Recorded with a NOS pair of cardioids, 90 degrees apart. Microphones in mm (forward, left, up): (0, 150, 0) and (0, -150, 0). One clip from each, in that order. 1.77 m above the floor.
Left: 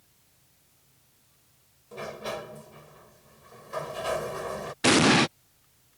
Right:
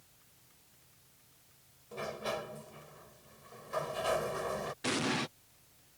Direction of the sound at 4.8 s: 65° left.